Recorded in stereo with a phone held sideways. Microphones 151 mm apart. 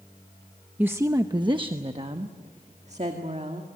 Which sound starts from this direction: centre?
A woman speaking, at 0.8 s.